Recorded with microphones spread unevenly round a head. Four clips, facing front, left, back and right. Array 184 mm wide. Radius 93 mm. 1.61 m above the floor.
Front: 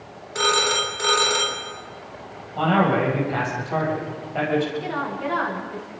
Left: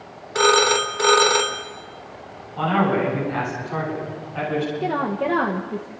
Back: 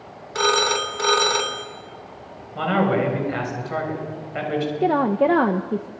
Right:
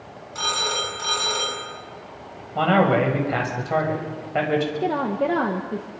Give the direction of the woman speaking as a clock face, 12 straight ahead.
6 o'clock.